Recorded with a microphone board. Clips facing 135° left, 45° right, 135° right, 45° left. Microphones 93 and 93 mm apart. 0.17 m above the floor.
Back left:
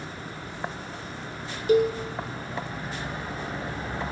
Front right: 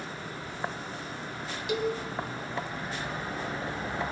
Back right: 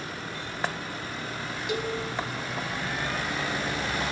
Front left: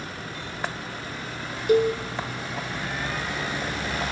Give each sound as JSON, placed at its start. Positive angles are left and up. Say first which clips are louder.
{"t": 1.7, "sound": "a cowbell", "louder": "back left 9 dB, front left 12 dB", "azimuth_deg": 85, "distance_m": 2.5}